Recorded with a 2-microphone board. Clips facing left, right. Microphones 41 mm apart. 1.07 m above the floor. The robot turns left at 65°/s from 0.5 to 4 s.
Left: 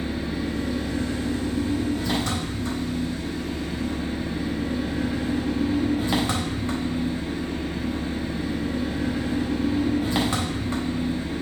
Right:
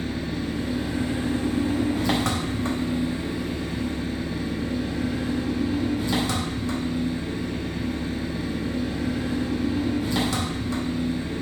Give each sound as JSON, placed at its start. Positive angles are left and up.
{"t": 0.0, "sound": "an engine running", "azimuth_deg": 15, "distance_m": 1.0}